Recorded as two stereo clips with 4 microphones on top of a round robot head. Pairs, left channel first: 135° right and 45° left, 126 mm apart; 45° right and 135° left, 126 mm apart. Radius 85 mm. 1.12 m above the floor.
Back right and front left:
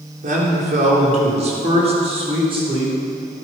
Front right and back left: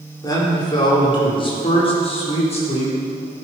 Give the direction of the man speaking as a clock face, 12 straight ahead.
11 o'clock.